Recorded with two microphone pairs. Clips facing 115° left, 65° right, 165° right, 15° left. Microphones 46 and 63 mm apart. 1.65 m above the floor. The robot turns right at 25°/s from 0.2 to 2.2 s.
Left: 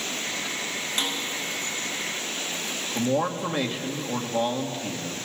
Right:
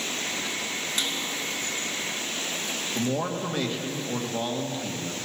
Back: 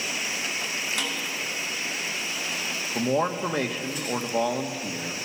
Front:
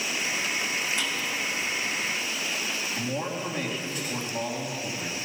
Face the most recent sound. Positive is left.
turn(degrees=-170)